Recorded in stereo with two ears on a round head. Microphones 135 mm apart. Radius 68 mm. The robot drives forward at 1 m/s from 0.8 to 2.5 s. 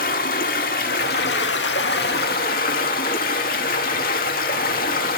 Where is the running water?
60° left (ahead or behind), 2.0 m; by 5.2 s 65° left (ahead or behind), 1.9 m.